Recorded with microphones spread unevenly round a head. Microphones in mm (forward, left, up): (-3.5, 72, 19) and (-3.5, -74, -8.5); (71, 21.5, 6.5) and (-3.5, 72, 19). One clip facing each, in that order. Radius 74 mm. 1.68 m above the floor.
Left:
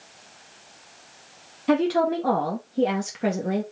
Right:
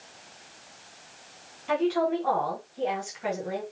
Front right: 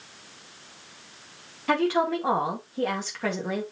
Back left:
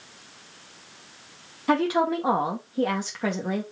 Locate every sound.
1.7 s a woman speaking: 70° left, 2.0 m